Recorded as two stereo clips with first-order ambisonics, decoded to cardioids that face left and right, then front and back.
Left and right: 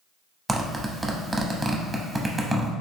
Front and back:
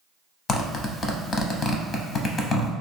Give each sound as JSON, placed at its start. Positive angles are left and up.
{"t": 0.5, "sound": "a zipper", "azimuth_deg": -20, "distance_m": 0.6}